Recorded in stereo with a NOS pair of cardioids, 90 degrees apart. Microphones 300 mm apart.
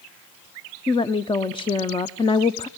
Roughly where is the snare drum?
No snare drum in this recording.